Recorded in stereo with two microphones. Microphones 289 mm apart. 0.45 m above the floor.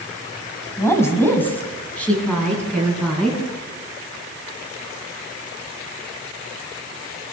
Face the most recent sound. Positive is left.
turn(degrees=0)  # may be behind; listen again after turning